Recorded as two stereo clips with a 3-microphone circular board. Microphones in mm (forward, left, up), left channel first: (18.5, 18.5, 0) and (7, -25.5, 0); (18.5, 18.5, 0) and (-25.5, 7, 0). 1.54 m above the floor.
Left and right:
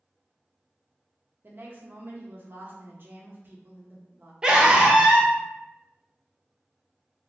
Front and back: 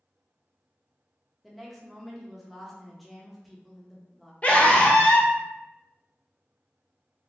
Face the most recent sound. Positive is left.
turn(degrees=-35)